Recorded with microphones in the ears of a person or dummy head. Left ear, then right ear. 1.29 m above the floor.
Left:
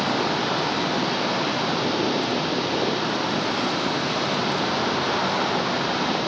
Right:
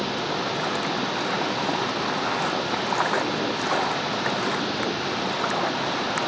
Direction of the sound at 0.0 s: 10° right (ahead or behind).